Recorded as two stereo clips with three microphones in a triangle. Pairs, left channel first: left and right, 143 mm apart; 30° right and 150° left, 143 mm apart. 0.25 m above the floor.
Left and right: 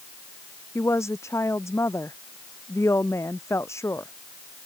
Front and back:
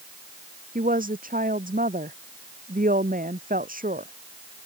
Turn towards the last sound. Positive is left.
turn(degrees=160)